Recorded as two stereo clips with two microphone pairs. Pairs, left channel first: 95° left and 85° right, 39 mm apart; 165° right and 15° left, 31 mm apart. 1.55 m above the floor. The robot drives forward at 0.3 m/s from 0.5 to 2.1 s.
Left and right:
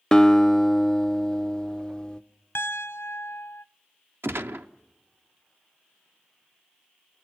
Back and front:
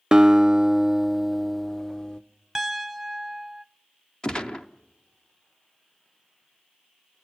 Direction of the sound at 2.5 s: 95° left.